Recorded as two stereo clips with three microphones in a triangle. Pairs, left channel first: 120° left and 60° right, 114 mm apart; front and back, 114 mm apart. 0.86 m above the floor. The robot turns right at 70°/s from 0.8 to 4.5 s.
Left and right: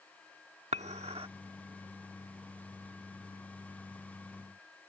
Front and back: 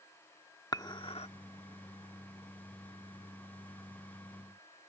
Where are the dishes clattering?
55° right; by 1.3 s 20° right.